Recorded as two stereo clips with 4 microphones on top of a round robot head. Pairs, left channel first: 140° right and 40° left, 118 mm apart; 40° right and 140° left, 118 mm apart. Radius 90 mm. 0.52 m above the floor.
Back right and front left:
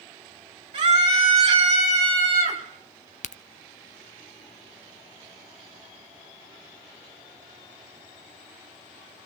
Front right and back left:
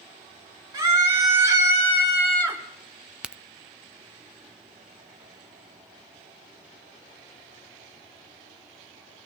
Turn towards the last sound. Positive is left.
turn(degrees=-140)